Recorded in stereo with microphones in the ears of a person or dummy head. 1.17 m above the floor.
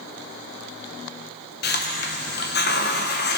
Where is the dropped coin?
I don't hear a dropped coin.